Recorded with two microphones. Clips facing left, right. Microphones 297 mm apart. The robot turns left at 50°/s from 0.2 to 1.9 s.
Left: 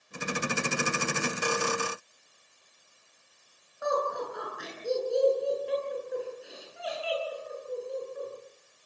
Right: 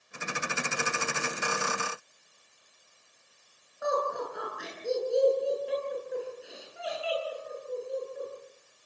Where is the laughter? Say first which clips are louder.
Even; centre (ahead or behind), 9 m.